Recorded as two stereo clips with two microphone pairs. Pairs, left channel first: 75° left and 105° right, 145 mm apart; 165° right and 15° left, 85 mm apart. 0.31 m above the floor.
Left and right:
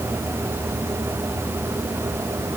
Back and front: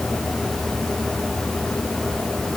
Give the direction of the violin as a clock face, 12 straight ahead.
No violin in this recording.